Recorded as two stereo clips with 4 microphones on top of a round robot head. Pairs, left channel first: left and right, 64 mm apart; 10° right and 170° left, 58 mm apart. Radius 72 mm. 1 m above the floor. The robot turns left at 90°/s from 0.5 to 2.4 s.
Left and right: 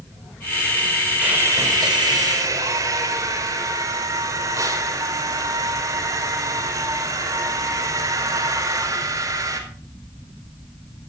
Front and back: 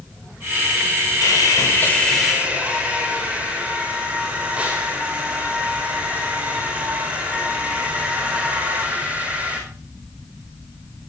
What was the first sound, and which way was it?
Sawing, 15° right.